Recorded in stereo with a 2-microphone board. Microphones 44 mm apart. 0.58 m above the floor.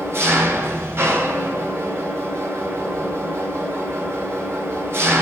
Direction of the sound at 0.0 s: 70° right (ahead or behind).